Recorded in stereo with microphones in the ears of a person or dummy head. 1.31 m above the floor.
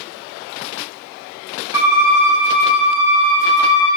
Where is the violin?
25° right (ahead or behind), 3 m.